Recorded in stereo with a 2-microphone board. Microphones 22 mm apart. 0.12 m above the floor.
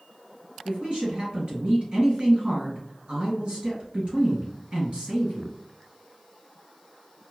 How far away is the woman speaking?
About 1.9 m.